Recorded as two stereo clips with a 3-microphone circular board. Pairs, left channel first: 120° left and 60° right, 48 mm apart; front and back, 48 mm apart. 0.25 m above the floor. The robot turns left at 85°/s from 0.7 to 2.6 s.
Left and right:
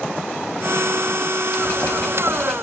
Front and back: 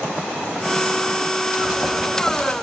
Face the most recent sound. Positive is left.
turn(degrees=45)